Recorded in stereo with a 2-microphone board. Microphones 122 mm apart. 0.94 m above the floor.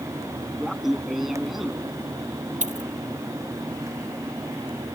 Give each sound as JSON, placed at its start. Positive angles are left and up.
{"t": 0.6, "sound": "laughter", "side_deg": 0}
{"t": 2.6, "sound": "a dropped coin", "side_deg": -85}